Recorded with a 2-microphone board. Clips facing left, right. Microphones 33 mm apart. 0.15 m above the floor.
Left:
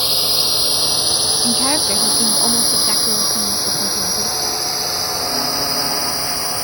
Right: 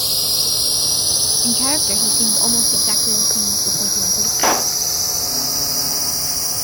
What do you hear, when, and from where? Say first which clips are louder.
0.0 s a drone: left 3 dB; 30° left (ahead or behind); by 6.7 s 35° left (ahead or behind)
1.4 s a woman speaking: left 3 dB; 10° left (ahead or behind)
4.4 s a pop: right 5 dB; 75° right (ahead or behind)